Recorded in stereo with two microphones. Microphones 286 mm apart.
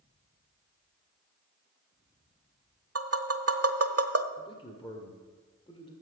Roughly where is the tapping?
Right.